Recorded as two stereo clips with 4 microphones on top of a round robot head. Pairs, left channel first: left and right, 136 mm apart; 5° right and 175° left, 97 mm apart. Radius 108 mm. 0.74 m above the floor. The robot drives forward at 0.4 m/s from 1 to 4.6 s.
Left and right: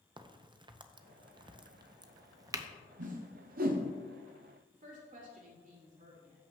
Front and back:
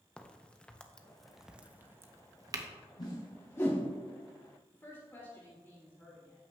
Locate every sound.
0.2 s a crack: 80° right, 0.6 m; by 2.7 s 150° right, 0.9 m
3.0 s a whoosh: 60° right, 0.9 m; by 3.9 s 85° right, 0.8 m
4.7 s a woman speaking: 75° right, 2.5 m